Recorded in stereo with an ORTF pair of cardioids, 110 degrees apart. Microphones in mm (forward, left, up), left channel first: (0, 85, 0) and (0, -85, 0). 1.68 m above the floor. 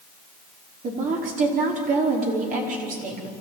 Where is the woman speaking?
50° right, 5 m.